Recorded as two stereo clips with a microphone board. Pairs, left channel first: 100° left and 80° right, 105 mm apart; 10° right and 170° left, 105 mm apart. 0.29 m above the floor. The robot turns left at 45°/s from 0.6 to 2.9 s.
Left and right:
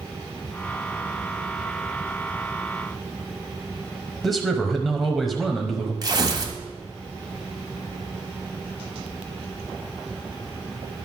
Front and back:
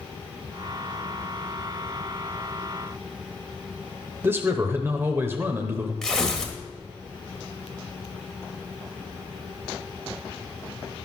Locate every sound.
4.2 s a man speaking: 175° right, 0.9 m
6.0 s tearing paper: 90° right, 1.5 m